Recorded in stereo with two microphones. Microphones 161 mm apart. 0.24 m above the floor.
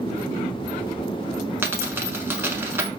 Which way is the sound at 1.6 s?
15° right (ahead or behind).